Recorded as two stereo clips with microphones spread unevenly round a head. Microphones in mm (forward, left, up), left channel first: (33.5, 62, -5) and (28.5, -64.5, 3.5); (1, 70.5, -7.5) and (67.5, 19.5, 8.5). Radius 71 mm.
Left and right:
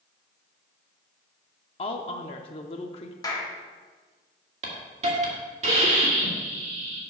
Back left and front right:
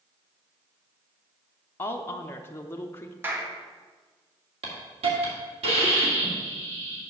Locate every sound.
1.8 s a woman speaking: 105° left, 0.6 m
3.2 s a clap: 25° left, 1.7 m
4.6 s a hiss: 60° right, 2 m